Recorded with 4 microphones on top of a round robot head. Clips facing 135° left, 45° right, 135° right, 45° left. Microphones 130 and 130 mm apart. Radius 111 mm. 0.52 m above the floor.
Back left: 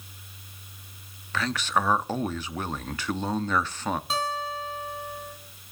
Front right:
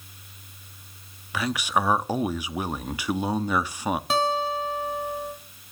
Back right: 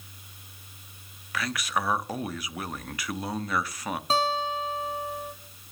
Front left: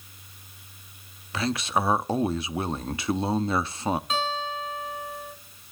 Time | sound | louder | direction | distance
1.3 | a man speaking | front right 1 dB, front left 4 dB | 20° left | 0.9 m
4.1 | a guitar | front right 6 dB, back right 3 dB | 75° right | 3.5 m